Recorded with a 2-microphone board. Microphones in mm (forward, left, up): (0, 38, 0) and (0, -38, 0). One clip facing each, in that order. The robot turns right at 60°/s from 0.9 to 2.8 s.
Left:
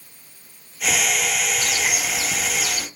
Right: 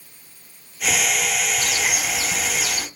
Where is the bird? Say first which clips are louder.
Even; 130° right, 1.5 m; by 2.9 s 55° right, 1.5 m.